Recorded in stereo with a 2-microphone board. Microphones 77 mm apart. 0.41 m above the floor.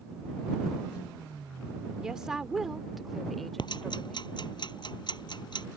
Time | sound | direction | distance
2.0 | a woman speaking | 10° right (ahead or behind) | ?
3.6 | ticking | 65° left (ahead or behind) | ?